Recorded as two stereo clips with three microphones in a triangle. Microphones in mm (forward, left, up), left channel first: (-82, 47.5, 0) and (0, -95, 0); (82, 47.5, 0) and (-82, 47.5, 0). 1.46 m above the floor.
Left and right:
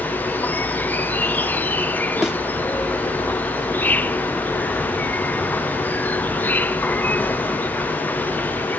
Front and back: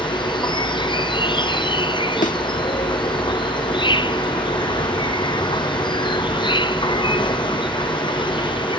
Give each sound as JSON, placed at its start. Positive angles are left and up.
{"t": 0.0, "sound": "an insect", "azimuth_deg": 45}
{"t": 2.2, "sound": "a thud", "azimuth_deg": 25}